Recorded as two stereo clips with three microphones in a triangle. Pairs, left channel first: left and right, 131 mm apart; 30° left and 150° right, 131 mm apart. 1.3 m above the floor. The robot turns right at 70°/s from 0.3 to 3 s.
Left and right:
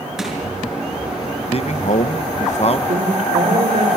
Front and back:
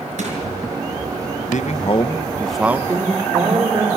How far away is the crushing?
About 6 m.